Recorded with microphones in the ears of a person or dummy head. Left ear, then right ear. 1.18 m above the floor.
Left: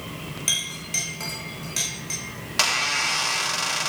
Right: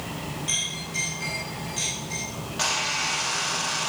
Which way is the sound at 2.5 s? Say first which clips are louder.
Left 4 dB; 55° left (ahead or behind).